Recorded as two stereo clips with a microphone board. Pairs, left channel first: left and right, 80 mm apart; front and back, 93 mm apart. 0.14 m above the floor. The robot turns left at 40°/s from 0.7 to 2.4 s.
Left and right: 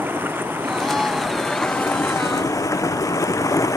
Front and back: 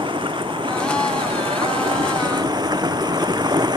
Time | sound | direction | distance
0.0 | running water | 155° right | ?